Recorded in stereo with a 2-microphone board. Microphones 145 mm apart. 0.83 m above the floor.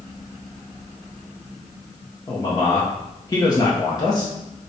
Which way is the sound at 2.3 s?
30° left (ahead or behind).